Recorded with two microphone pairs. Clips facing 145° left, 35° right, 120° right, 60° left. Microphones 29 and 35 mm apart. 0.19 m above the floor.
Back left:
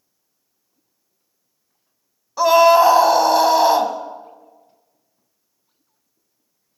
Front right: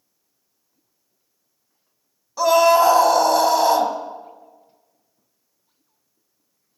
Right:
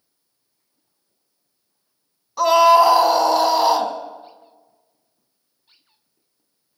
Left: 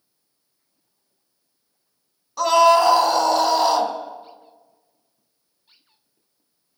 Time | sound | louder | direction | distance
2.4 | a scream | back left 3 dB, right 2 dB | 175° left | 1.4 m